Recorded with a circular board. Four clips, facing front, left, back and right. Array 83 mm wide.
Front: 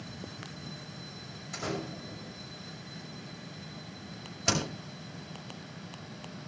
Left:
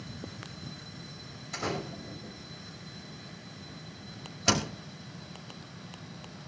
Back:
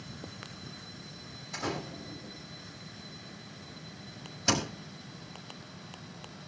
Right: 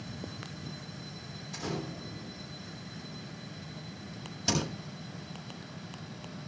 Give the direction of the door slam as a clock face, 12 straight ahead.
10 o'clock.